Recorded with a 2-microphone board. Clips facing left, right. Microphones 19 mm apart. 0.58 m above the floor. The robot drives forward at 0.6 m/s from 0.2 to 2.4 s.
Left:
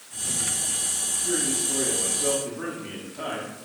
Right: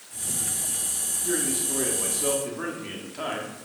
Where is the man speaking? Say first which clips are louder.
Even; 25° right (ahead or behind), 1.1 m.